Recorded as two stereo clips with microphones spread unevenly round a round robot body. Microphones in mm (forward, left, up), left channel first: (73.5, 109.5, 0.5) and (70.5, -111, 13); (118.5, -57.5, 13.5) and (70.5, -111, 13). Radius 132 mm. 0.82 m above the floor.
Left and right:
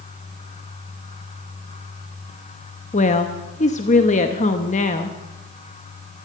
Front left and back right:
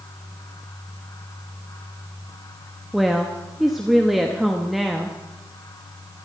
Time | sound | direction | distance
2.9 | a woman speaking | 140° left | 0.8 m